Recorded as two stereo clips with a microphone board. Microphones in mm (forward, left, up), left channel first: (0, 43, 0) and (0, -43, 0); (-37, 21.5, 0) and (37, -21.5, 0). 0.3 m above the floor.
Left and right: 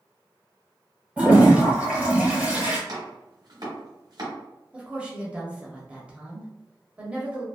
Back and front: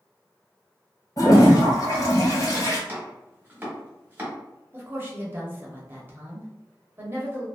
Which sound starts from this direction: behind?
A toilet flushing, at 1.2 s.